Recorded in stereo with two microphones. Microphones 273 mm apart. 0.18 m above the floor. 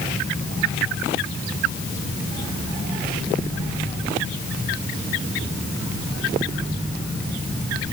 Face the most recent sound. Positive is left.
No sound to turn to.